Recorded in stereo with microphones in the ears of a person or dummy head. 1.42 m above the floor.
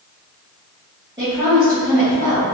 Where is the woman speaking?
25° right (ahead or behind), 1.8 m.